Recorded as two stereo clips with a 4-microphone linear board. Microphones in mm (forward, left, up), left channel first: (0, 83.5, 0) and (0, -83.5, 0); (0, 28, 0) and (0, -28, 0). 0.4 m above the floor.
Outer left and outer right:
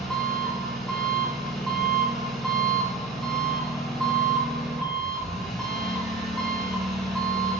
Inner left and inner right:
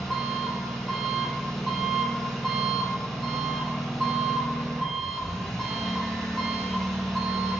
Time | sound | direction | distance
0.0 | an engine running | centre (ahead or behind) | 1.4 m